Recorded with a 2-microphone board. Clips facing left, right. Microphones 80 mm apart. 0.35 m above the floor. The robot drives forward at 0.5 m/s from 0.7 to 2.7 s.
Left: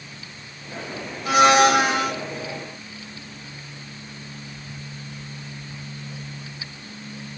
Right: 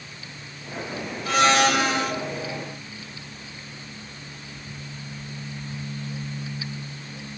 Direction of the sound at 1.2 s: 15° left (ahead or behind).